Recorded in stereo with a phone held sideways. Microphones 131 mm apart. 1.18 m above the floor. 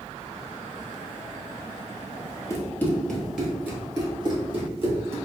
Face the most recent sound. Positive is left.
turn(degrees=-50)  # may be behind; listen again after turning